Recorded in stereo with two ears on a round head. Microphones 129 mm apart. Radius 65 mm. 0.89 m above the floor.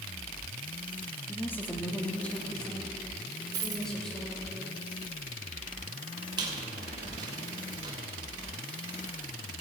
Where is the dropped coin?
25° right (ahead or behind), 1.3 m.